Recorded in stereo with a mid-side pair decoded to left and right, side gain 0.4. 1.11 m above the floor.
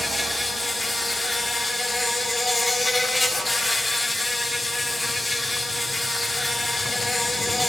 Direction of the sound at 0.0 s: 20° left.